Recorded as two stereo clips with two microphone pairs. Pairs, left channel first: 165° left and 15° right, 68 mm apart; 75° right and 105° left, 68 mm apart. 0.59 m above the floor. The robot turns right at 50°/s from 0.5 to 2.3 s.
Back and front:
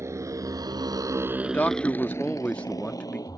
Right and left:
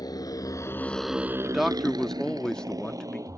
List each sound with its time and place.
0.0 s a motorcycle: 60° right; by 3.4 s 140° left
1.4 s a man speaking: 170° left; by 3.3 s 145° right